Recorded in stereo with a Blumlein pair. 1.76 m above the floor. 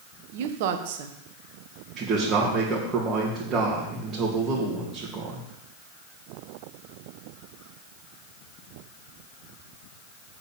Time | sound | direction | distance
0.3 | a woman speaking | 50° right | 1.5 m
2.0 | a man speaking | 25° right | 3 m